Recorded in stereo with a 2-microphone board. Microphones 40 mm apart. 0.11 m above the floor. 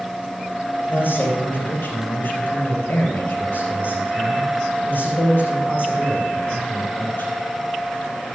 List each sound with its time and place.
0.9 s a man speaking: 60° left (ahead or behind), 3.5 m